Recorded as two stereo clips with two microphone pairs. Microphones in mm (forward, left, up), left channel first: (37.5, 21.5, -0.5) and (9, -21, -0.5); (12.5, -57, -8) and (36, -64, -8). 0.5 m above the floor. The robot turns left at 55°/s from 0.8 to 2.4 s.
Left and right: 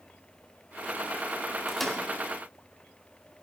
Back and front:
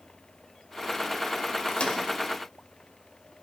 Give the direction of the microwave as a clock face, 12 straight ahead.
7 o'clock.